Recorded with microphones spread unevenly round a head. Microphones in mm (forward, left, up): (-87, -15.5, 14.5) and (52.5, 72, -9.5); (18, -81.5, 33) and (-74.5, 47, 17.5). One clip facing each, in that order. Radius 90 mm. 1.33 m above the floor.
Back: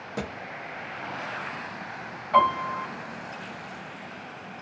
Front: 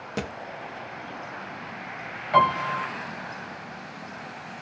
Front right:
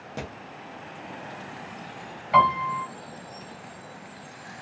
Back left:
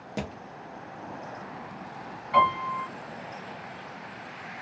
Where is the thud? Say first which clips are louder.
Front 1 dB, back left 2 dB; 60° left, 0.7 m.